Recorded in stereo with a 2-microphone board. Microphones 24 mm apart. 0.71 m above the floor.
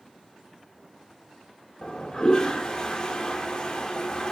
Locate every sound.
1.8 s a toilet flushing: 35° left (ahead or behind), 0.7 m